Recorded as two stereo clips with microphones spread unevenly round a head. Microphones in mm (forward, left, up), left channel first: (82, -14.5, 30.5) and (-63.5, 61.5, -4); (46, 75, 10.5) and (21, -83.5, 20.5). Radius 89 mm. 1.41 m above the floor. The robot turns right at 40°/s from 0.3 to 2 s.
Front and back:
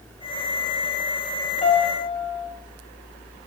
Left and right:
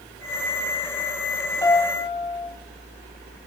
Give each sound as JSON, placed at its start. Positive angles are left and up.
{"t": 1.6, "sound": "a piano", "azimuth_deg": 10, "distance_m": 0.7}